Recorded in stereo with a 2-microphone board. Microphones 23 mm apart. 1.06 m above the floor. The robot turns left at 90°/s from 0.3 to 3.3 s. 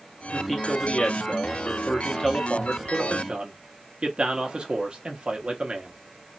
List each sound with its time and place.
0.3 s a man speaking: 165° right, 1.0 m; by 6.0 s 75° right, 1.0 m